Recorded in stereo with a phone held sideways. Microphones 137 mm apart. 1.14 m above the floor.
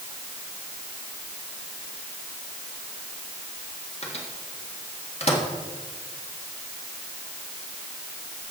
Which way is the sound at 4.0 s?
50° left (ahead or behind).